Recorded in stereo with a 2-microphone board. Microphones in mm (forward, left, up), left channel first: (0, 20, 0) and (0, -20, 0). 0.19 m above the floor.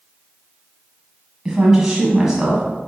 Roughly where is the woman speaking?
Centre.